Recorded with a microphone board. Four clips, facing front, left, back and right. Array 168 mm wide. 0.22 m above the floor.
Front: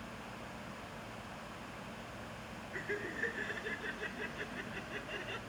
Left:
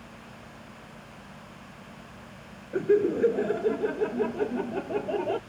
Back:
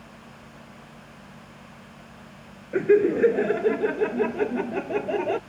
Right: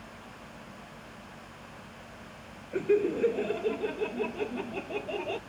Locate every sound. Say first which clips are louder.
2.7 s laughter: left 3 dB, back 24 dB; 170° left; by 5.4 s 160° left